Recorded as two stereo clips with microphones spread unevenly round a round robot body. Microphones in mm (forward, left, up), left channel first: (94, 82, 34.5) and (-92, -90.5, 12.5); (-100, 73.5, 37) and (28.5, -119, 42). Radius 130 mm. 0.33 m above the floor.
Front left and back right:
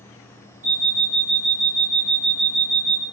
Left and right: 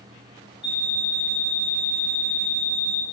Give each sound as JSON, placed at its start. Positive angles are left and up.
{"t": 0.6, "sound": "an alarm clock", "azimuth_deg": -165, "distance_m": 1.6}